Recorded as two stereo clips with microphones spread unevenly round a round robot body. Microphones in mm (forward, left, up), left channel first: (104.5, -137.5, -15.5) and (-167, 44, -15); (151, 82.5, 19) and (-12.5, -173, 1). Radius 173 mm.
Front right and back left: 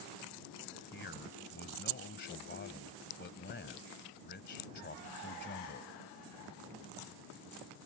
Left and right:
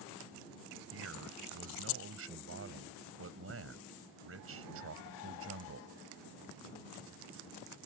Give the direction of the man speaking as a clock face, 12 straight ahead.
3 o'clock.